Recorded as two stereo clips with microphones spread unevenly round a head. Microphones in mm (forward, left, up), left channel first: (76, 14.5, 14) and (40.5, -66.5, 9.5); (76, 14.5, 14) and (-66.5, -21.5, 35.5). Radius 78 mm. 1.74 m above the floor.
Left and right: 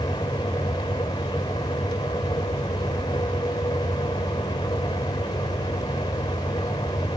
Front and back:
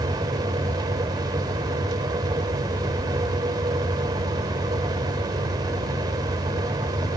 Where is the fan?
130° left.